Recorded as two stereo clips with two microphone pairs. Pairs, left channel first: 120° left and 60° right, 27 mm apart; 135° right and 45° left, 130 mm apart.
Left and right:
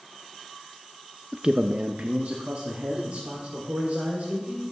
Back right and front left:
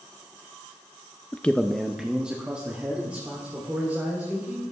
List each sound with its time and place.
1.3 s a man speaking: 80° right, 0.6 m; by 4.6 s 30° right, 4 m